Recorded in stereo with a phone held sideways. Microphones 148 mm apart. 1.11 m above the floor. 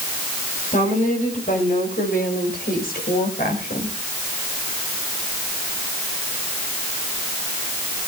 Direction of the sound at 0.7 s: 60° left (ahead or behind).